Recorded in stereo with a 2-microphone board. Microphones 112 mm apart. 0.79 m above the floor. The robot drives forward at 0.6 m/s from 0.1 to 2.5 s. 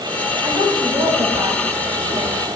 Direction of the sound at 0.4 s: 50° right (ahead or behind).